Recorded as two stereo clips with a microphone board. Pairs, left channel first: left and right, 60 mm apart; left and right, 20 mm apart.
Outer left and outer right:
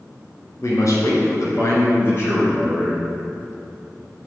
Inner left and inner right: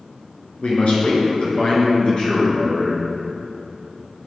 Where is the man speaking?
60° left (ahead or behind), 2.5 m; by 3.0 s 35° left (ahead or behind), 3 m.